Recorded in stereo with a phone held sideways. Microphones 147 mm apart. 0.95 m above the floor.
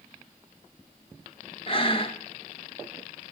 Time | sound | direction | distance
1.7 | breathing | 40° left (ahead or behind) | 0.8 m